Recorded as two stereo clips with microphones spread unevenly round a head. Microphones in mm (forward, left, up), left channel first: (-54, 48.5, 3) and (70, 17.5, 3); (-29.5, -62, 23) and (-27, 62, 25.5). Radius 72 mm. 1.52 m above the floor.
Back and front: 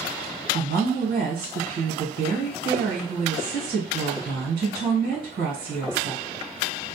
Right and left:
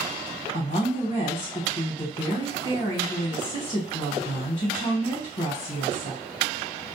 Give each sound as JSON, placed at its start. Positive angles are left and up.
{"t": 0.5, "sound": "a woman speaking", "azimuth_deg": -40, "distance_m": 1.2}